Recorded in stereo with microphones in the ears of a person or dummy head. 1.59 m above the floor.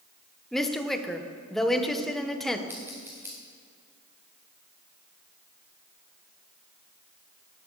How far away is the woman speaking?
About 1.2 m.